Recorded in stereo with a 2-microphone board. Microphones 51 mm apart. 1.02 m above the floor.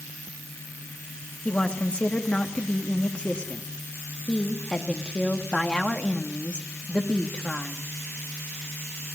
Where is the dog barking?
No dog barking in this recording.